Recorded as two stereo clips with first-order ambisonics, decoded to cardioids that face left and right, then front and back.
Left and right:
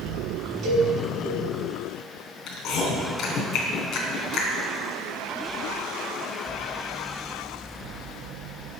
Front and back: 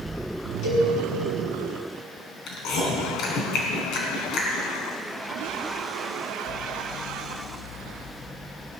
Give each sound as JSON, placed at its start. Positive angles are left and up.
{"t": 0.6, "sound": "a cowbell", "azimuth_deg": -45, "distance_m": 4.0}
{"t": 2.5, "sound": "chewing", "azimuth_deg": 40, "distance_m": 3.5}